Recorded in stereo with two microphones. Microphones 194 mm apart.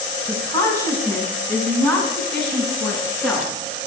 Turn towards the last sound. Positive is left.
turn(degrees=0)  # may be behind; listen again after turning